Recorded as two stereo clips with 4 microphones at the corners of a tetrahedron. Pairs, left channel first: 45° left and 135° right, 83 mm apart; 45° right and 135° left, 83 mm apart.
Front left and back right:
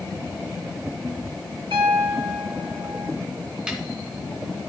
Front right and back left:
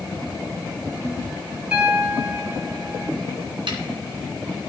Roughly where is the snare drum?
Behind left.